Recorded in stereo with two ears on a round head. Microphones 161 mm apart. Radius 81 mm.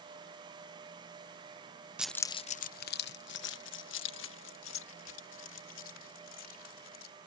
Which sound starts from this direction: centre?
Keys jangling, at 2.0 s.